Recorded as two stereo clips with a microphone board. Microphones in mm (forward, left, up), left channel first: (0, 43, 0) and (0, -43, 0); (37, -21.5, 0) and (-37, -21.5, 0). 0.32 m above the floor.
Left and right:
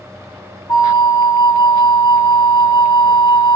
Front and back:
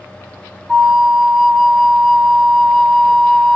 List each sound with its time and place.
0.7 s a flute: 90° left, 1.5 m